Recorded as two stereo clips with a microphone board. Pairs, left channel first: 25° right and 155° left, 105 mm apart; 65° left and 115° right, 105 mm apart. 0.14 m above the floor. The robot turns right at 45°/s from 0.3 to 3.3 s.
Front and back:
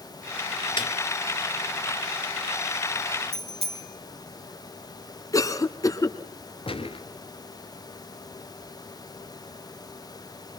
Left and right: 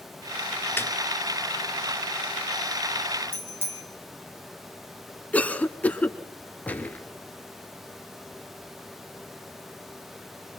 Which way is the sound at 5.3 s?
Straight ahead.